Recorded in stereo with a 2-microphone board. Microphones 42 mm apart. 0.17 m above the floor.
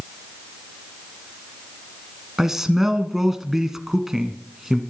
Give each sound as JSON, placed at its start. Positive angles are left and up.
{"t": 2.4, "sound": "a man speaking", "side_deg": -10, "distance_m": 1.5}